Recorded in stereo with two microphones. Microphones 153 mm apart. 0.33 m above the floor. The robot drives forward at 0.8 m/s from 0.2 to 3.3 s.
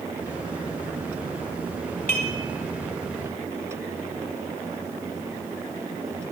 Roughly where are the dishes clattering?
Left.